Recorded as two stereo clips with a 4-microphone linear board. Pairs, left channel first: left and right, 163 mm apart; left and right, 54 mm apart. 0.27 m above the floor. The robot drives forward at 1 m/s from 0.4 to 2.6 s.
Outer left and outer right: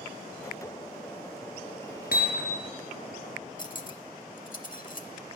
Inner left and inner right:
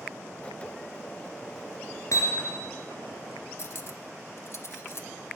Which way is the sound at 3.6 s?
55° left (ahead or behind).